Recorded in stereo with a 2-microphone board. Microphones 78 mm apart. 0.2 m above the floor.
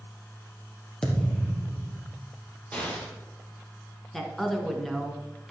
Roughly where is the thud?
Centre.